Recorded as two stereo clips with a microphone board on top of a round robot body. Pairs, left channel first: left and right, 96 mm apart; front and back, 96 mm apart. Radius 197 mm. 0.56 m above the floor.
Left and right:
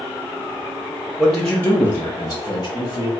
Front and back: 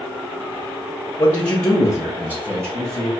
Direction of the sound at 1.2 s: 5° right.